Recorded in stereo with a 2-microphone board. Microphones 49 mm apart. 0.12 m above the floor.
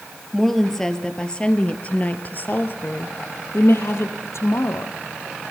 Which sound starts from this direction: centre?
A woman speaking, at 0.3 s.